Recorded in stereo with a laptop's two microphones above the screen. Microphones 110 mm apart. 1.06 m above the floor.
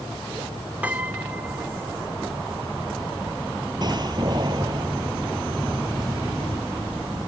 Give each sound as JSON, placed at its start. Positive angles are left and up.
{"t": 0.8, "sound": "a piano", "side_deg": -15}
{"t": 3.8, "sound": "a door slam", "side_deg": -45}